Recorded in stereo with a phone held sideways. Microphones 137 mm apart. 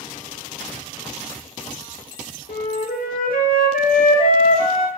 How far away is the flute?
About 0.5 m.